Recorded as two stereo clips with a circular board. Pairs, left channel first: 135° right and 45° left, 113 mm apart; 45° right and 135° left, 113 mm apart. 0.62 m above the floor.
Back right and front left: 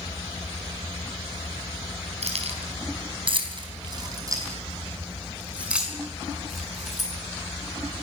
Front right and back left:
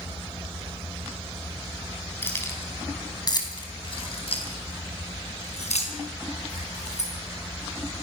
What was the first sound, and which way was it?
Keys jangling, 25° left.